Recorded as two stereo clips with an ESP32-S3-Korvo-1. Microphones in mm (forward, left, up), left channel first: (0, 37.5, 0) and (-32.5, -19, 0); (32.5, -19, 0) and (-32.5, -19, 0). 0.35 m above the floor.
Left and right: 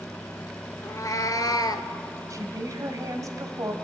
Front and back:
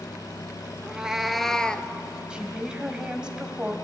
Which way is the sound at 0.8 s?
105° left.